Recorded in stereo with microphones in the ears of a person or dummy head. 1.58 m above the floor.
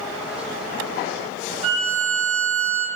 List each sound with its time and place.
1.6 s a violin: 50° right (ahead or behind), 1.0 m